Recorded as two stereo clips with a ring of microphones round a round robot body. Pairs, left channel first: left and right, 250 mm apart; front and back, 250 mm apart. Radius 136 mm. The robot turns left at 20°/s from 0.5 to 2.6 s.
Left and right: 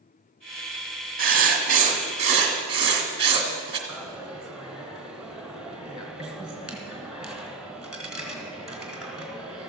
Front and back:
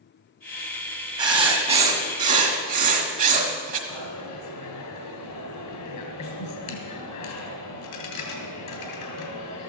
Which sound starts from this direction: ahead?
A dropped coin, at 3.9 s.